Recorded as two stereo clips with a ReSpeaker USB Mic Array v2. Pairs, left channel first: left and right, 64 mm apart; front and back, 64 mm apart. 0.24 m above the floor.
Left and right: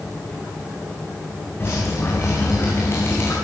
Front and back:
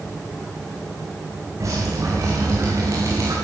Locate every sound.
1.6 s dripping: 145° left, 7 m